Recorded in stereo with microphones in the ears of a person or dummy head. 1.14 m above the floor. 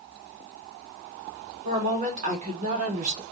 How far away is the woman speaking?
About 1.7 m.